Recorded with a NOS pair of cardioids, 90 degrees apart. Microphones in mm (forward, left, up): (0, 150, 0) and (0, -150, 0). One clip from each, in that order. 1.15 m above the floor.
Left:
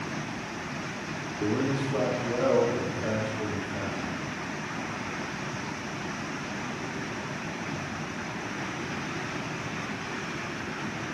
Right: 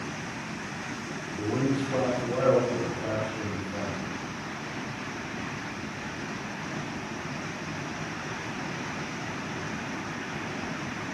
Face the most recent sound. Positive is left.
turn(degrees=-60)